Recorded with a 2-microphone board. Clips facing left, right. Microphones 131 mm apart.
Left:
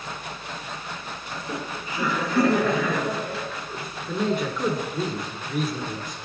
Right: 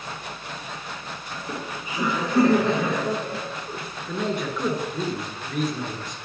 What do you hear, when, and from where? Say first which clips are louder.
1.3 s laughter: left 1 dB; 5° right (ahead or behind), 1.4 m; by 3.8 s 30° right (ahead or behind), 1.9 m
4.1 s a man speaking: left 2 dB; centre (ahead or behind), 1.5 m